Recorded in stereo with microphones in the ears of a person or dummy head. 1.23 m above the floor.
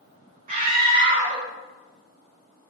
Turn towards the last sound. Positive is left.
turn(degrees=-40)  # may be behind; listen again after turning